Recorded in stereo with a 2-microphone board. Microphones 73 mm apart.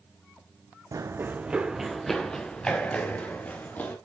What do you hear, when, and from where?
0.9 s running footsteps: 50° right (ahead or behind), 0.7 m; by 4.0 s 25° left (ahead or behind), 2.5 m